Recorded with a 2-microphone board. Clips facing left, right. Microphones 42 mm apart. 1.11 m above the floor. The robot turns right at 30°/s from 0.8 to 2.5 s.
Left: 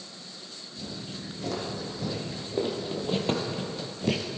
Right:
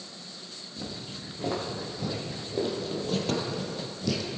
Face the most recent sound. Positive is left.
turn(degrees=40)  # may be behind; listen again after turning